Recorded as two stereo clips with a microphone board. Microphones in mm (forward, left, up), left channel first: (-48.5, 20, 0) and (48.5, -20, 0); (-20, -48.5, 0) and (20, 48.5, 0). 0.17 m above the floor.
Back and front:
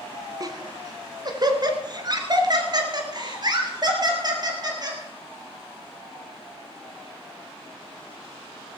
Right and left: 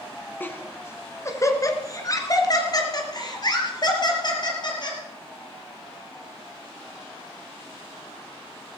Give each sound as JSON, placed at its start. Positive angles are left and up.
{"t": 0.4, "sound": "laughter", "azimuth_deg": -50, "distance_m": 1.5}